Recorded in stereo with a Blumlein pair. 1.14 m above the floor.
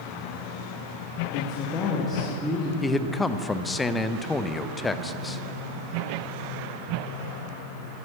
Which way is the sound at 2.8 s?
10° left.